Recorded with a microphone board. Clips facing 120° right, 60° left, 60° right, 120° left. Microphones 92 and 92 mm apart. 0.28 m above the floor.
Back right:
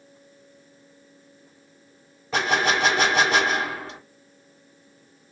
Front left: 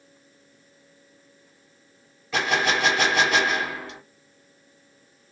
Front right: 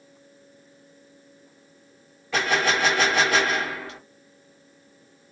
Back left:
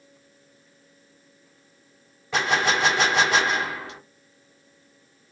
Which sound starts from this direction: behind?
A gunshot, at 2.3 s.